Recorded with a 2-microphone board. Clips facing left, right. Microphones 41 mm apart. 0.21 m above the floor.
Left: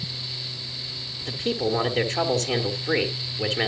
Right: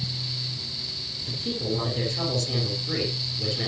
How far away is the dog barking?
No dog barking in this recording.